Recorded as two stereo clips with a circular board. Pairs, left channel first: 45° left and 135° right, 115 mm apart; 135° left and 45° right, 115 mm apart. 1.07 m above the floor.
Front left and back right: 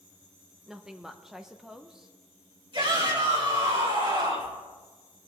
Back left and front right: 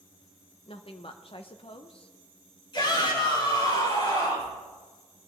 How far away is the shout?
About 7 m.